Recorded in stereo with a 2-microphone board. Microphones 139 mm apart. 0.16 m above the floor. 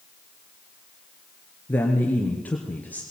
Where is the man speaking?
15° left (ahead or behind), 3 m.